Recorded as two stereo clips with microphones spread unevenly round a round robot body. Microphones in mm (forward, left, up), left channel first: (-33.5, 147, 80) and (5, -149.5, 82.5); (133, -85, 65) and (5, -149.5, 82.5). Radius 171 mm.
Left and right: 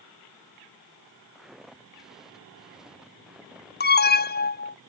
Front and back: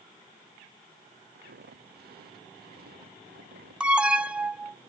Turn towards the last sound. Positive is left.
turn(degrees=120)